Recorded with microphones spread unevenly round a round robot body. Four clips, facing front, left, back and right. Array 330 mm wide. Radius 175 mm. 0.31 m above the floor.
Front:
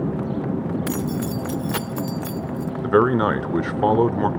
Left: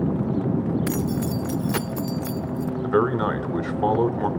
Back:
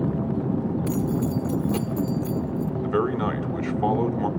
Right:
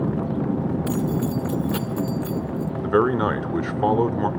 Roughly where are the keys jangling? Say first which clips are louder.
Right 1 dB, even; left.